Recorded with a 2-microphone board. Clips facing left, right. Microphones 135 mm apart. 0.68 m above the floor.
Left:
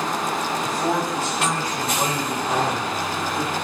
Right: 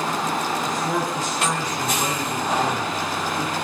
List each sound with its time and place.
0.6 s a man speaking: 75° left (ahead or behind), 4 m; by 3.5 s 25° left (ahead or behind), 2 m